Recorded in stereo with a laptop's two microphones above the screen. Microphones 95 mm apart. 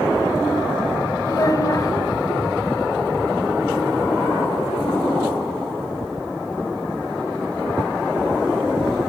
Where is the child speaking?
40° left (ahead or behind), 4.5 m.